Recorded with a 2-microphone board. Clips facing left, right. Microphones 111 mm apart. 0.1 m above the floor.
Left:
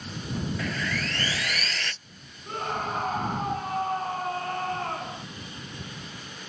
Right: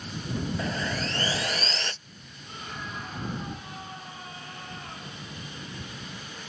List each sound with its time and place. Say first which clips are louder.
0.6 s sawing: right 1 dB; 25° right (ahead or behind)
2.5 s a scream: left 9 dB; 60° left (ahead or behind)